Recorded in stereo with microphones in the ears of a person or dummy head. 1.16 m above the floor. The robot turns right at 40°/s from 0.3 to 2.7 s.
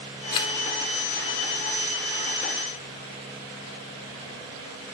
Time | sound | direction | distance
0.3 | a camera shutter | 25° left (ahead or behind) | 1.5 m